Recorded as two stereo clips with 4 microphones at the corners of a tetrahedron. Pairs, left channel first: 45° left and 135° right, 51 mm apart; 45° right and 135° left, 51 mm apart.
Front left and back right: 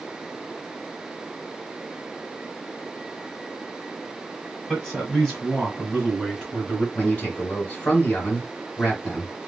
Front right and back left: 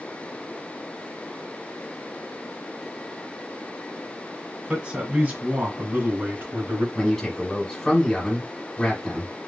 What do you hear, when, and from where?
4.7 s a man speaking: 115° left, 1.5 m; by 6.8 s 125° left, 2 m
7.0 s a man speaking: 30° left, 1.4 m